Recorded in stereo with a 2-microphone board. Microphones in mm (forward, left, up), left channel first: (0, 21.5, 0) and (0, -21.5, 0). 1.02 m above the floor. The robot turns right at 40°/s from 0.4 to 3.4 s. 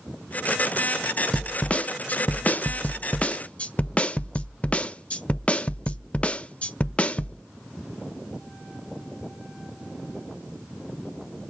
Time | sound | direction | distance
1.3 | a snare drum | 45° left | 0.5 m